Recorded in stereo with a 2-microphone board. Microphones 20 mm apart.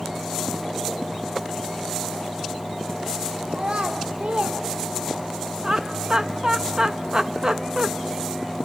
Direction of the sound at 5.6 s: 40° right (ahead or behind).